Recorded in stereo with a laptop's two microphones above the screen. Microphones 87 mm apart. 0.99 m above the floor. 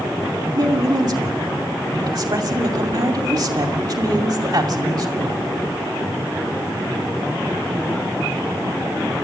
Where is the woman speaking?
50° right (ahead or behind), 2.5 m.